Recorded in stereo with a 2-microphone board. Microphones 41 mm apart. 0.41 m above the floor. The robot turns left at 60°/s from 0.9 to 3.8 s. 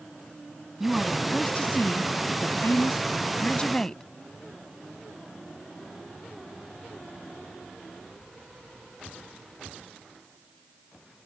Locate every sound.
0.8 s a woman speaking: 170° right; by 4.0 s 15° left